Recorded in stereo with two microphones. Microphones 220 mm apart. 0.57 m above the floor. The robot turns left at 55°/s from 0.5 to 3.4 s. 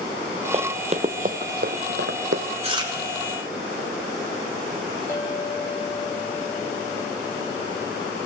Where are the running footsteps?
30° right (ahead or behind), 0.7 m; by 2.4 s 70° right (ahead or behind), 1.4 m.